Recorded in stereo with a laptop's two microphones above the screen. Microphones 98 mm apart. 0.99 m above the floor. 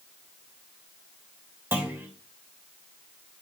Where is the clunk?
20° right (ahead or behind), 3 m.